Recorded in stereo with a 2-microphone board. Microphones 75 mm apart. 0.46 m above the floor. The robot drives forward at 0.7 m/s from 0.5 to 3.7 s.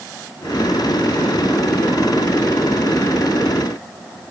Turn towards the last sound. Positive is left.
No sound to turn to.